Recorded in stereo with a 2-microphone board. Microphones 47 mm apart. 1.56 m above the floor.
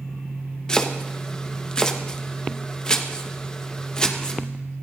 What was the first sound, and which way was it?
Chopping, 20° left (ahead or behind).